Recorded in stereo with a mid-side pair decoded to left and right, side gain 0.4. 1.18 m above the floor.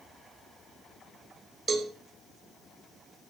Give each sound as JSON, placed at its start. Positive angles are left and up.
{"t": 1.7, "sound": "a cowbell", "azimuth_deg": -40, "distance_m": 6.5}